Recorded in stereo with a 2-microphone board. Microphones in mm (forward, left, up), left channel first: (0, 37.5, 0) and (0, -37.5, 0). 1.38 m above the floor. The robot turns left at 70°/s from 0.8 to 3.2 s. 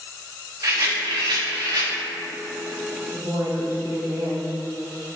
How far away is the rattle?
About 0.5 m.